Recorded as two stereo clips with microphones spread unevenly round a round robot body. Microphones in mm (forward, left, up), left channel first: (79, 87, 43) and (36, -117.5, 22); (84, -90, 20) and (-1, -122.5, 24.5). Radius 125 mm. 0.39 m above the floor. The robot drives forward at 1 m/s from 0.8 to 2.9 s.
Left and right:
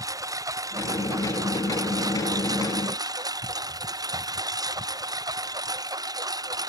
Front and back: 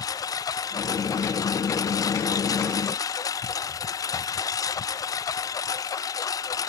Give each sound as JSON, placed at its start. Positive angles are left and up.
{"t": 0.0, "sound": "a lawn mower", "azimuth_deg": -30}